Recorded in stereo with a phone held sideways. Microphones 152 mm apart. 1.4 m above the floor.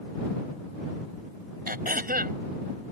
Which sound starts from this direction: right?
Throat clearing, at 1.7 s.